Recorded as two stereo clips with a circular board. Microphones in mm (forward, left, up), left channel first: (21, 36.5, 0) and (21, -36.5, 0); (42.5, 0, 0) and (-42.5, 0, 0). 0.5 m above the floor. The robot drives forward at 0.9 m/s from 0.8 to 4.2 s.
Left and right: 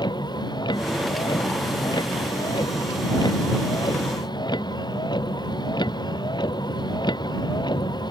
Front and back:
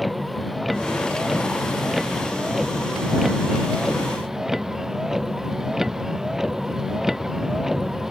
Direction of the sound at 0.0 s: 90° left.